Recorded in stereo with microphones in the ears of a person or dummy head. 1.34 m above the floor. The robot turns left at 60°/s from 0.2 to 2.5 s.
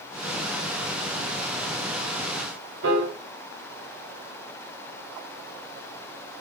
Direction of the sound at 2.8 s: 65° right (ahead or behind).